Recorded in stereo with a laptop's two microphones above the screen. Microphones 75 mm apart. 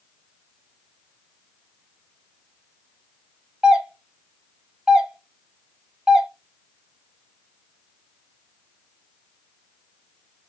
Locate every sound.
3.6 s a doorbell: 10° right (ahead or behind), 0.8 m